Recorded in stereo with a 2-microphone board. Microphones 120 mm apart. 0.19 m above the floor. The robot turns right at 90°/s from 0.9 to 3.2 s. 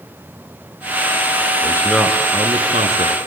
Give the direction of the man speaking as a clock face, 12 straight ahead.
7 o'clock.